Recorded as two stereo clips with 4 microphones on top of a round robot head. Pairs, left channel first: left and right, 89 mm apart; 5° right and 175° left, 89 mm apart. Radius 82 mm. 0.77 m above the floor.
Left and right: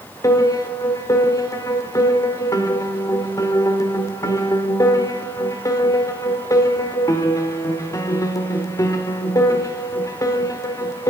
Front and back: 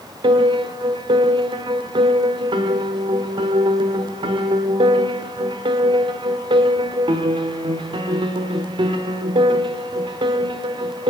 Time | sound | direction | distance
0.2 | a piano | 145° left | 1.2 m